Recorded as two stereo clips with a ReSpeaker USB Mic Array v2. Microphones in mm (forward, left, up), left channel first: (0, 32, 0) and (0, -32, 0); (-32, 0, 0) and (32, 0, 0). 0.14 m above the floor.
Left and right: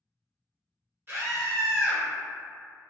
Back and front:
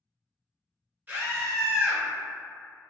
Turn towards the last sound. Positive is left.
turn(degrees=-55)